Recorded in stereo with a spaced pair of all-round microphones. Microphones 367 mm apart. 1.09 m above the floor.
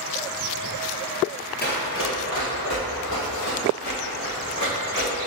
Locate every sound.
1.6 s running footsteps: 25° left (ahead or behind), 1.5 m; by 5.1 s 65° left (ahead or behind), 4.5 m